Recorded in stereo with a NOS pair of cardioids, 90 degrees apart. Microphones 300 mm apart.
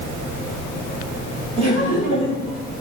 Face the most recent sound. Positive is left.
turn(degrees=-20)